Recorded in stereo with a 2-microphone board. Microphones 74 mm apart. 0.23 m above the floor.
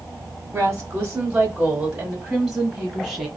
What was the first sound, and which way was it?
A woman speaking, 20° right (ahead or behind).